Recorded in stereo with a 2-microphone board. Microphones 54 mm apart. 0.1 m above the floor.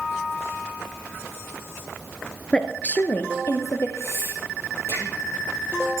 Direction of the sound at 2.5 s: 15° left (ahead or behind).